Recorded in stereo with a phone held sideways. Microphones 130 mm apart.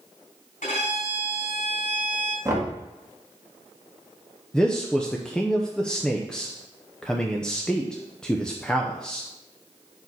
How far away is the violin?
About 3.5 m.